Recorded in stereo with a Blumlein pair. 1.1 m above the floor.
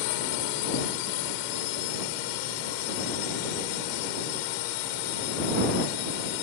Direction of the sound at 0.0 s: 45° left.